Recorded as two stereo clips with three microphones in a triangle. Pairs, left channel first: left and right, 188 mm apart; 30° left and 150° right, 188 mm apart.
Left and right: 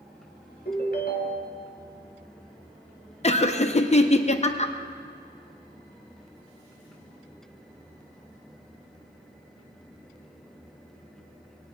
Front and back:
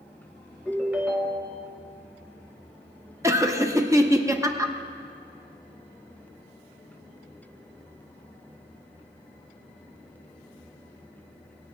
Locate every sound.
0.7 s a ringtone: 130° left, 1.7 m
3.2 s laughter: 140° left, 0.6 m